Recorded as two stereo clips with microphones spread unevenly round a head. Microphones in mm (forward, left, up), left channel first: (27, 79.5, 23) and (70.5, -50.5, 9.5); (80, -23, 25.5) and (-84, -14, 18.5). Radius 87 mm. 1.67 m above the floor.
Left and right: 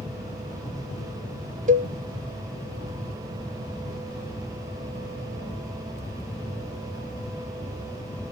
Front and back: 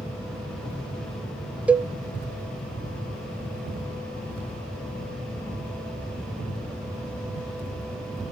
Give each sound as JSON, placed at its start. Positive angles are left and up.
{"t": 1.7, "sound": "a cowbell", "azimuth_deg": -100, "distance_m": 0.5}